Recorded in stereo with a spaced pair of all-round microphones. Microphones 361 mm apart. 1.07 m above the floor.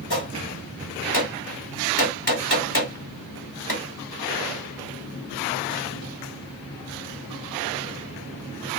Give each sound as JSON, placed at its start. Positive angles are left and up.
{"t": 0.1, "sound": "a gunshot", "side_deg": 75, "distance_m": 1.6}